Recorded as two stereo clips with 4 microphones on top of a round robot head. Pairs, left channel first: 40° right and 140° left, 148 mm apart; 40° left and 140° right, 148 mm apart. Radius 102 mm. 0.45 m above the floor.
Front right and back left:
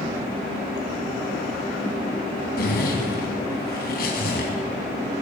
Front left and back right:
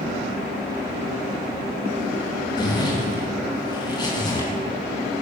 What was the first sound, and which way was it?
A zipper, 25° right.